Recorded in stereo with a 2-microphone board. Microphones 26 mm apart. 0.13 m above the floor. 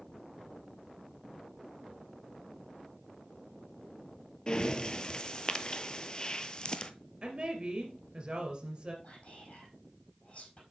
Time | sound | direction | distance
4.5 | breathing | 30° left (ahead or behind) | 0.6 m
7.2 | a woman speaking | 40° right (ahead or behind) | 2.5 m
9.0 | whispering | 50° left (ahead or behind) | 5 m